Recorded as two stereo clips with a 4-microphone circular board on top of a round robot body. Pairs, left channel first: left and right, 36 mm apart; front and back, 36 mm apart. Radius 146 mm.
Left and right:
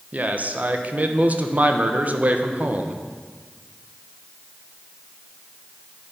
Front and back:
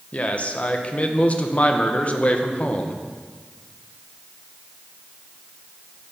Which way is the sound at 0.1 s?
50° right.